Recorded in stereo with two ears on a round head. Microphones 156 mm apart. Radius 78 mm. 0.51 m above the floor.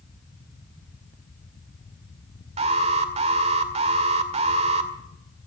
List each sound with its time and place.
2.6 s an alarm: 40° right (ahead or behind), 1.9 m